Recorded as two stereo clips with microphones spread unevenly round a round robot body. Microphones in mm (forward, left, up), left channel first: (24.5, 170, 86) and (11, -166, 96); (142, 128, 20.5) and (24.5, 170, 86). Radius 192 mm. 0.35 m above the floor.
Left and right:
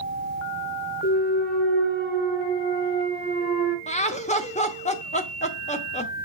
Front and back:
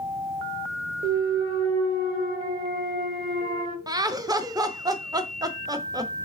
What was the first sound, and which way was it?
A clunk, 145° left.